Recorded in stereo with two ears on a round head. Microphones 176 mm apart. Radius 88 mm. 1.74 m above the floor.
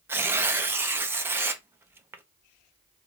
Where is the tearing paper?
10° right (ahead or behind), 0.6 m.